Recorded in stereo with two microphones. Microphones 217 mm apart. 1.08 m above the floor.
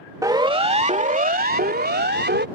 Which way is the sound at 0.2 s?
15° right (ahead or behind).